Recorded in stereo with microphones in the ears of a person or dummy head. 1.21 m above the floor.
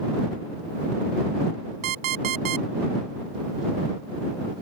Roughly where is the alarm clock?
Right.